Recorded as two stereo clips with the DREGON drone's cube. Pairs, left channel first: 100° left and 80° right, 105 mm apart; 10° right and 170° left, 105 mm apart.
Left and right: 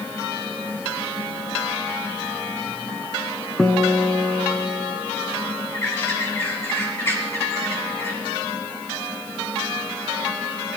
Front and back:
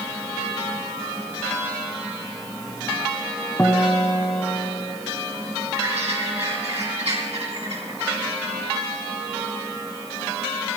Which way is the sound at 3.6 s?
15° left.